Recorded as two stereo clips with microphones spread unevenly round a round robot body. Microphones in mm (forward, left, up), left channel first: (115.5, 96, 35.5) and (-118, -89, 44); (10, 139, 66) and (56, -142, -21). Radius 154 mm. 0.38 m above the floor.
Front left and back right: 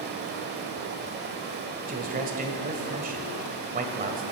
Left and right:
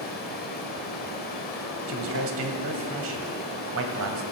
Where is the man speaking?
80° right, 1.7 m.